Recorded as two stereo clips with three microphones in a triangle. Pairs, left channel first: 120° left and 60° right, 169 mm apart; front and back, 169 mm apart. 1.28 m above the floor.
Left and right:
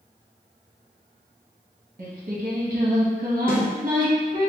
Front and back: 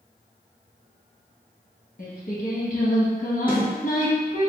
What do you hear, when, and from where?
2.0 s singing: 25° right, 1.0 m
3.5 s a snare drum: 60° left, 1.2 m